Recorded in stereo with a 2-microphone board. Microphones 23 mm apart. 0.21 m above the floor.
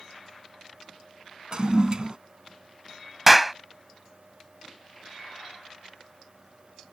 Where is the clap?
15° right (ahead or behind).